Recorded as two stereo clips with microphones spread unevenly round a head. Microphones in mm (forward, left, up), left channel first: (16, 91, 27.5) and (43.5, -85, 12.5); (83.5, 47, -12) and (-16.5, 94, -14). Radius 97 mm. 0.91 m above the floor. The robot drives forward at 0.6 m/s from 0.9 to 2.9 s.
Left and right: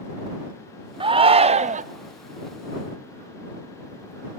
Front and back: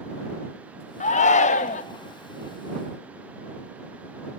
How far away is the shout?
About 1.0 m.